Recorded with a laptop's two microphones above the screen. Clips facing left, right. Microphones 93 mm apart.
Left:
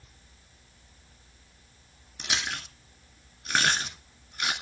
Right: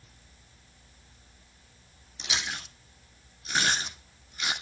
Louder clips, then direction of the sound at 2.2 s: Left 2 dB; 55° left (ahead or behind).